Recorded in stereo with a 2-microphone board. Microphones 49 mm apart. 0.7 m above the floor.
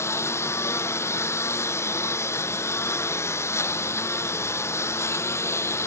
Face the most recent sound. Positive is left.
turn(degrees=65)  # may be behind; listen again after turning